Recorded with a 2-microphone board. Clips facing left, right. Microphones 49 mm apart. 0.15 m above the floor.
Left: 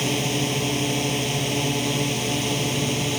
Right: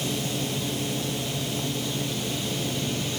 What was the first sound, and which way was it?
A drone, 65° left (ahead or behind).